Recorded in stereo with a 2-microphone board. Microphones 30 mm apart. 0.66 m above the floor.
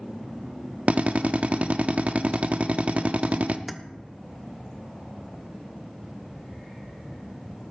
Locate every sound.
0.9 s a drill: 55° right (ahead or behind), 0.7 m
3.7 s keys jangling: centre (ahead or behind), 0.8 m